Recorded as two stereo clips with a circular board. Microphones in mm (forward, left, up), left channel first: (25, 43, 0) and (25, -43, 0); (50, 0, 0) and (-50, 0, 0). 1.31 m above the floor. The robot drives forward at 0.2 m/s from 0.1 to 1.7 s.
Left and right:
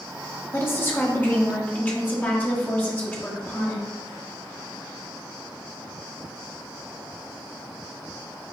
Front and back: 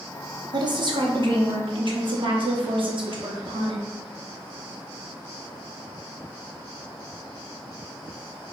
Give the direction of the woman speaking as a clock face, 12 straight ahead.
7 o'clock.